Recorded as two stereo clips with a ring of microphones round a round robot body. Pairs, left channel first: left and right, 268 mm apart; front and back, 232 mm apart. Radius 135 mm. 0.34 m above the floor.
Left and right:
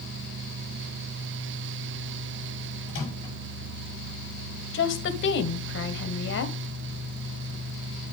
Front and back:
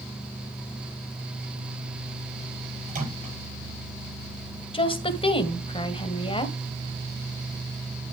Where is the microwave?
130° left, 7.5 m.